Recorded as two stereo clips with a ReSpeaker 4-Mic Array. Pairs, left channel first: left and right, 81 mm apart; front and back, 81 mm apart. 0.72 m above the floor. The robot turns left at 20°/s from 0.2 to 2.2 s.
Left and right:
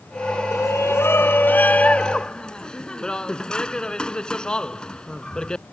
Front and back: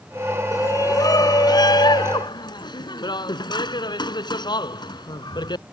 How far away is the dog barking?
I don't hear a dog barking.